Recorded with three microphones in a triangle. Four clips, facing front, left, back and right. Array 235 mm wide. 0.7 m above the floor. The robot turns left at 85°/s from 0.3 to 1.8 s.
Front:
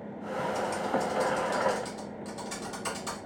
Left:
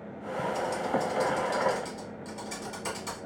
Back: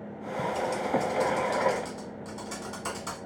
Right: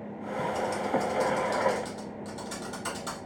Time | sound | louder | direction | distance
0.5 | typing on a keyboard | right 1 dB, back 2 dB | 55° right | 1.5 m